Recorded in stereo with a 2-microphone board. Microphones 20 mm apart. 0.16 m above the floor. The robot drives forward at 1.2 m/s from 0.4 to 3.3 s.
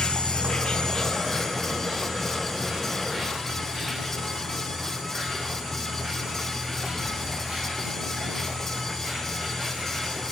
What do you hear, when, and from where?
0.0 s an insect: 60° left (ahead or behind), 0.8 m; by 10.3 s 10° left (ahead or behind), 4 m